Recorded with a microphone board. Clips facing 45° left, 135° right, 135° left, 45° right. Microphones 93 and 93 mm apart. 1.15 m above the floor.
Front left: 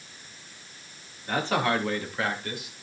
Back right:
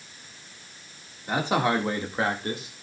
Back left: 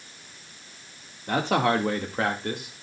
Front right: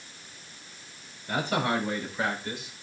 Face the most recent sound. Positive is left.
turn(degrees=170)